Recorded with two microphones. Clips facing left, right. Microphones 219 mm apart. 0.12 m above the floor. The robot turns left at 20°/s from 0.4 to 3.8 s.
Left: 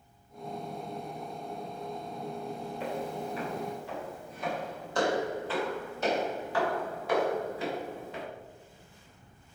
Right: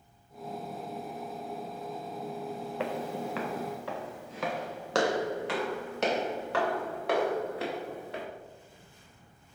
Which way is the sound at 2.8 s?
80° right.